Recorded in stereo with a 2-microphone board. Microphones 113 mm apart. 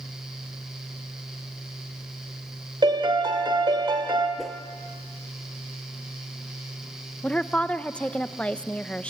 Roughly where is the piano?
Right.